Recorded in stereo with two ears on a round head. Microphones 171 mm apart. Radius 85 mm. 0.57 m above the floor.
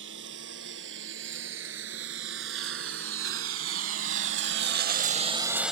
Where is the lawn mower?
70° right (ahead or behind); by 5.7 s centre (ahead or behind).